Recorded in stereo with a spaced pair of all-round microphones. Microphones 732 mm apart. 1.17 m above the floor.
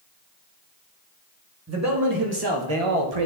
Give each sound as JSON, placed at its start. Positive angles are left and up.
{"t": 1.7, "sound": "a man speaking", "side_deg": -20, "distance_m": 2.0}